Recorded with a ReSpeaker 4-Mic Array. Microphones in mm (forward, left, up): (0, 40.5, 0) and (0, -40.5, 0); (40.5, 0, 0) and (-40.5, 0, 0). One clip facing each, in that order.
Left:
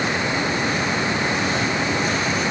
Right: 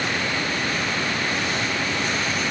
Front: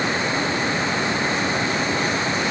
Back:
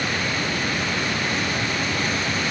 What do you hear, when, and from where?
Only background noise.